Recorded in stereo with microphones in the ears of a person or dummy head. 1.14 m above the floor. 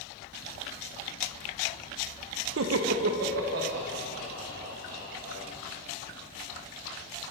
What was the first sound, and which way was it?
Laughter, 80° right.